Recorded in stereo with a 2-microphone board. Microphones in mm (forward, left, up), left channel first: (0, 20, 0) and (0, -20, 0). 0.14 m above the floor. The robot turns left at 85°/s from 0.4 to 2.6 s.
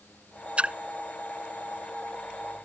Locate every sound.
0.6 s a splash: 35° right (ahead or behind); by 0.8 s 30° right (ahead or behind)